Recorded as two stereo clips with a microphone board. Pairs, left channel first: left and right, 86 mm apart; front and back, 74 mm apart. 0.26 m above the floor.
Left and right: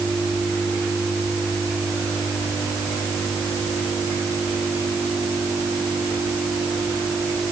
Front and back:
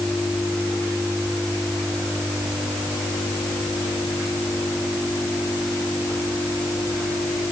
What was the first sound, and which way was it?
Only background noise.